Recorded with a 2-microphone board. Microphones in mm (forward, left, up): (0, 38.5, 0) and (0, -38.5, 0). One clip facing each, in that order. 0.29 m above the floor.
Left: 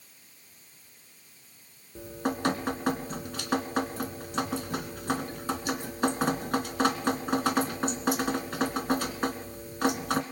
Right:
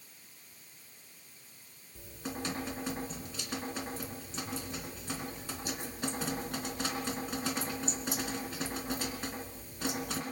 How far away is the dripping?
About 2 m.